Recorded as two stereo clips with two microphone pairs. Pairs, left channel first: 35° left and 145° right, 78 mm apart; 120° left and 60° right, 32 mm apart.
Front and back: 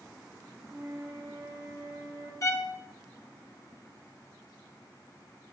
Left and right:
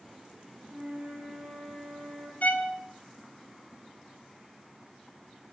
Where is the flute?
75° right, 6.5 m.